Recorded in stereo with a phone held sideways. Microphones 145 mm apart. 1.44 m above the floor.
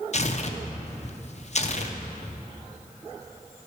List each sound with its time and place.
0.1 s tearing paper: 50° left (ahead or behind), 0.7 m